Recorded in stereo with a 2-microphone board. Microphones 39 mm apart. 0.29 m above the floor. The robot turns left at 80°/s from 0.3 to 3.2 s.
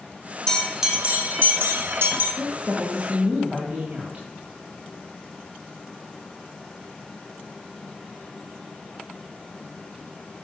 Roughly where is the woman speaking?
Ahead right.